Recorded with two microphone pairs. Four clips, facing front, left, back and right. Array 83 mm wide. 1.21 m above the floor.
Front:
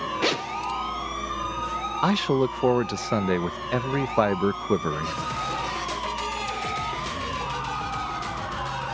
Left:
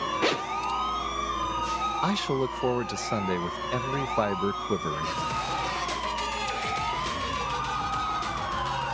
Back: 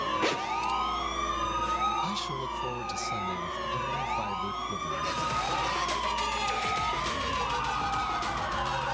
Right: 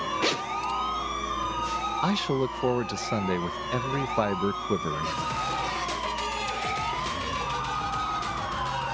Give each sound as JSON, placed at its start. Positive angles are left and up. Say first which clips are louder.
{"t": 0.2, "sound": "a zipper", "louder": "left 3 dB, front 7 dB", "azimuth_deg": 50}
{"t": 2.0, "sound": "a man speaking", "louder": "right 2 dB, front 10 dB", "azimuth_deg": 5}